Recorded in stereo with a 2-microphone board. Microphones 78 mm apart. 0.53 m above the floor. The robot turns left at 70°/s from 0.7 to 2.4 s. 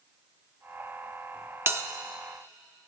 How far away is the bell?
About 0.6 m.